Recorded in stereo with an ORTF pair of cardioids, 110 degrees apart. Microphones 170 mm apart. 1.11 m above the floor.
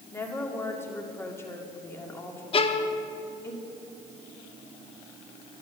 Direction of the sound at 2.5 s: 35° left.